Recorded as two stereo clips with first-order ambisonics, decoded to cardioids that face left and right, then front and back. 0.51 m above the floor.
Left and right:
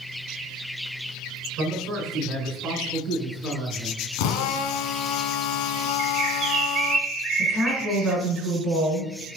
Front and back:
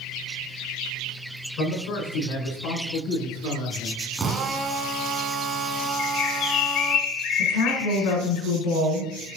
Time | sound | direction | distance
1.6 | a man speaking | 35° right | 5.5 m
4.2 | a drill | 105° left | 1.7 m
6.0 | a bird | 30° right | 2 m
7.4 | a woman speaking | straight ahead | 5 m